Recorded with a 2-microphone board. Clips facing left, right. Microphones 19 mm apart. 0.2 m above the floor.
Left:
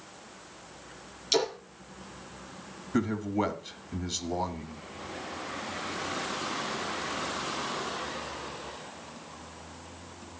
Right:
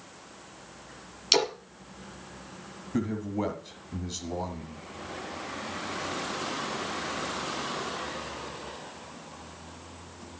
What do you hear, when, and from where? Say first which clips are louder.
1.3 s a splash: right 3 dB; 35° right (ahead or behind), 3.5 m
2.9 s a man speaking: left 2 dB; 25° left (ahead or behind), 1.7 m